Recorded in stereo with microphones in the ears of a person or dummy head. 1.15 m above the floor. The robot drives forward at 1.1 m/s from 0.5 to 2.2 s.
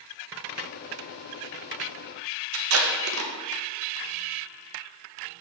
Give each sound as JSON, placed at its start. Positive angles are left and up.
{"t": 2.5, "sound": "tape being pulled", "side_deg": -70, "distance_m": 0.9}